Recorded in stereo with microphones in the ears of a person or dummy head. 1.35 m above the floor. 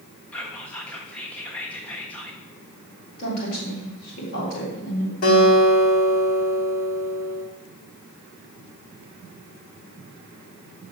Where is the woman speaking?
60° left (ahead or behind), 4.5 m.